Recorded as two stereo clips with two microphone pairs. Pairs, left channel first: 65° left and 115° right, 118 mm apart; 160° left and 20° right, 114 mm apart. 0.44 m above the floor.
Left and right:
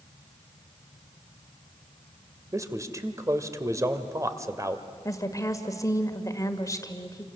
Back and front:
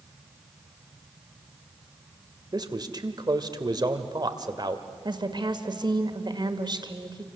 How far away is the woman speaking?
About 2.0 m.